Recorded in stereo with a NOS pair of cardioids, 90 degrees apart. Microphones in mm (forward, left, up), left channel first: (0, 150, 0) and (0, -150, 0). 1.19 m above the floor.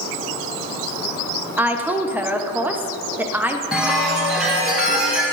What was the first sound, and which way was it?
A woman speaking, 5° right.